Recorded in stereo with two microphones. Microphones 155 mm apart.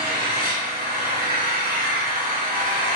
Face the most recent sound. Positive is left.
turn(degrees=-75)  # may be behind; listen again after turning